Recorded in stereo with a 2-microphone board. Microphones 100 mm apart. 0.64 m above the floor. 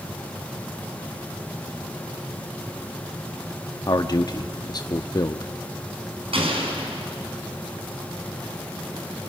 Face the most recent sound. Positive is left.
turn(degrees=-65)  # may be behind; listen again after turning